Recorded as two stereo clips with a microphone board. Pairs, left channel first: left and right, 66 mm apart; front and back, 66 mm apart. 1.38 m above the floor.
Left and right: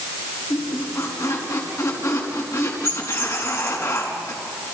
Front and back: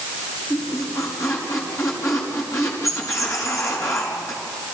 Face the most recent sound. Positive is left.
turn(degrees=40)